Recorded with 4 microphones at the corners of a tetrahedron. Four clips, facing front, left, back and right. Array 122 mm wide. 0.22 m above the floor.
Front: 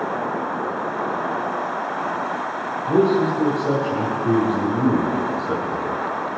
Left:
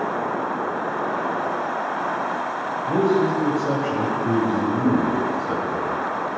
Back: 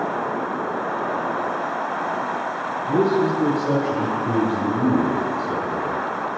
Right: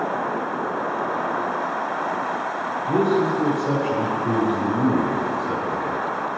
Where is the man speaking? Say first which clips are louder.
Even, front 2 dB; 5° right, 1.2 m.